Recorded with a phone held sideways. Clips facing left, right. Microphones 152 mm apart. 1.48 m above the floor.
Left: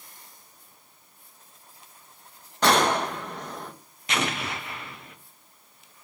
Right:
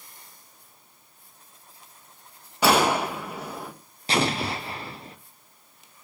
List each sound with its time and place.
2.6 s a gunshot: 5° right (ahead or behind), 0.8 m
4.1 s an explosion: 30° right (ahead or behind), 0.8 m